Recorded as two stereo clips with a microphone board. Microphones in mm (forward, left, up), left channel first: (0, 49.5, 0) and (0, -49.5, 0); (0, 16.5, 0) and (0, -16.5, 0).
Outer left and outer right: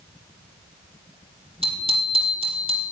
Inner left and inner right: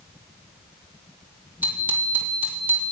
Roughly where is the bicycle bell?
Right.